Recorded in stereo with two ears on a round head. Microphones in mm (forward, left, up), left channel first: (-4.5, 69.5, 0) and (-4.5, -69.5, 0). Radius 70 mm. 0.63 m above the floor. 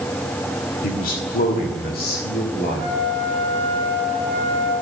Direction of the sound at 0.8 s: 55° left (ahead or behind).